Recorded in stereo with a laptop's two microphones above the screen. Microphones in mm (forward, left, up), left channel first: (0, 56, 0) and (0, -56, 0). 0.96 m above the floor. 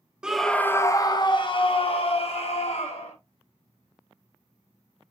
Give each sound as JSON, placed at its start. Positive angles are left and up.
{"t": 0.2, "sound": "a scream", "side_deg": -5, "distance_m": 0.5}